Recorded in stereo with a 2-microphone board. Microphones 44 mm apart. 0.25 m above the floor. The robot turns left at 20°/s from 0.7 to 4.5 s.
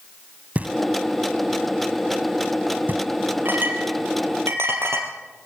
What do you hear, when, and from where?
0.6 s knocking: 35° right (ahead or behind), 1.3 m; by 3.0 s 50° right (ahead or behind), 1.3 m
3.5 s a clink: 50° right (ahead or behind), 3.5 m; by 5.5 s 70° right (ahead or behind), 3.5 m